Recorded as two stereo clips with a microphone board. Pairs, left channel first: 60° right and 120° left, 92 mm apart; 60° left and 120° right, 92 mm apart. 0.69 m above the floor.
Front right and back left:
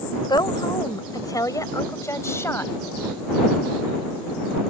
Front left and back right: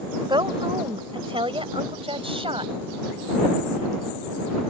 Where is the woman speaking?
90° right; by 2.7 s 125° right.